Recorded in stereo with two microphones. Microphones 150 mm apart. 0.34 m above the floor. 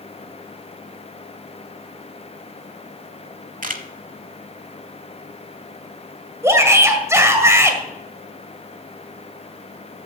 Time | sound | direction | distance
3.6 | a camera shutter | 65° right (ahead or behind) | 0.8 m
6.4 | a shout | 20° right (ahead or behind) | 1.8 m